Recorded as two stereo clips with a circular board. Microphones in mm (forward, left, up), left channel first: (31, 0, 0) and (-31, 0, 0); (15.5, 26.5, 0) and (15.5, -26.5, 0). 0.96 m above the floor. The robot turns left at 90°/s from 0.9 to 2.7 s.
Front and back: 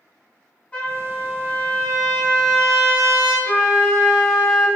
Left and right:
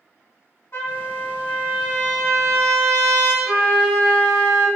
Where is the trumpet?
65° left, 1.1 m; by 3.3 s 95° right, 1.1 m.